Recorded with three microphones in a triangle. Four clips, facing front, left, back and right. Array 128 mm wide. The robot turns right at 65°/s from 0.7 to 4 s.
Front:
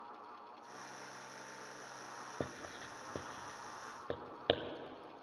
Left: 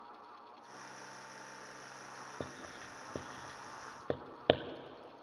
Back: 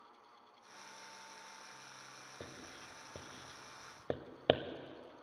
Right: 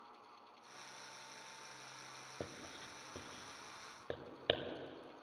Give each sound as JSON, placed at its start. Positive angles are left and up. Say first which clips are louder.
{"t": 2.4, "sound": "writing", "louder": "left 2 dB, front 8 dB", "azimuth_deg": 10, "distance_m": 0.6}